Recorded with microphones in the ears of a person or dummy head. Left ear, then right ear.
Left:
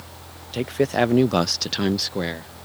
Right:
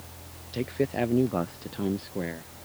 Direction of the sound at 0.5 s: 35° left (ahead or behind).